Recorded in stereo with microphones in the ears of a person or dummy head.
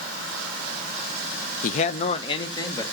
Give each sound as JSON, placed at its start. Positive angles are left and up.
{"t": 1.6, "sound": "a man speaking", "side_deg": 45, "distance_m": 0.5}